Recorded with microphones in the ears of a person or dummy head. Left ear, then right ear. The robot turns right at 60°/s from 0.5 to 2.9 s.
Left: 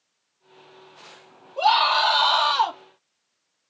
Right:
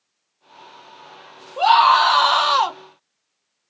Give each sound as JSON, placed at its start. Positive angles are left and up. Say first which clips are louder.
{"t": 1.6, "sound": "a scream", "louder": "right 5 dB", "azimuth_deg": -150, "distance_m": 1.3}